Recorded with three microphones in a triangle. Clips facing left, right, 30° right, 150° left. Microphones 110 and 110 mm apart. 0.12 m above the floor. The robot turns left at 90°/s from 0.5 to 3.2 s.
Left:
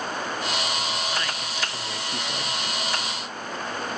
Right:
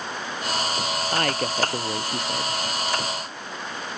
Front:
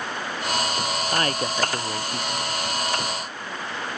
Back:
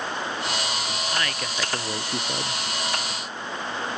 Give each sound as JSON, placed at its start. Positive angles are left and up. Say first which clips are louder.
{"t": 1.1, "sound": "a woman speaking", "louder": "right 6 dB, front 6 dB", "azimuth_deg": -65}